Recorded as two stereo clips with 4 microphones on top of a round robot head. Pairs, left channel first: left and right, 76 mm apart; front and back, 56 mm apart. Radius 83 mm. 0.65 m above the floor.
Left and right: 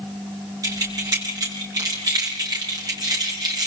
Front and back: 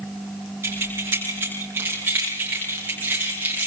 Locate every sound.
0.6 s keys jangling: 130° right, 9 m; by 3.7 s 120° right, 8.5 m